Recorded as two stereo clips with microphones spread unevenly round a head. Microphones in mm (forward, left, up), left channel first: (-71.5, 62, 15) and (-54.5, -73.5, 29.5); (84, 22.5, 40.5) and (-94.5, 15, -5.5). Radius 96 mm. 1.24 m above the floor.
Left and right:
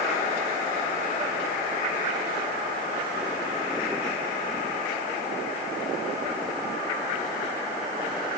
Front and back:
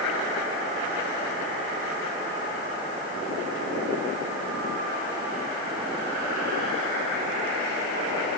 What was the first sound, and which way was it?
Only background noise.